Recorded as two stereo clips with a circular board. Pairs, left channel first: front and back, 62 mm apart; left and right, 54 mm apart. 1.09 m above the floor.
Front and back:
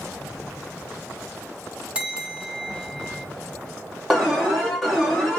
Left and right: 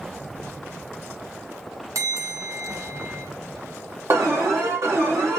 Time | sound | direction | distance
1.9 | a bell | 110° right | 0.7 m
4.1 | an alarm | 90° right | 1.5 m